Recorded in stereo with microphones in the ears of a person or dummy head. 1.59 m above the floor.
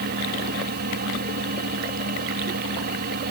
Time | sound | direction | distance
0.0 | a fan | 55° right (ahead or behind) | ?